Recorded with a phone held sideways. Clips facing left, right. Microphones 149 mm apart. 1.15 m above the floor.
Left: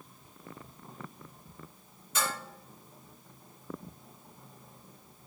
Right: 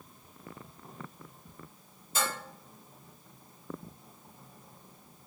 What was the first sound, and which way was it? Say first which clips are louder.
Dishes clattering: even; 35° right (ahead or behind).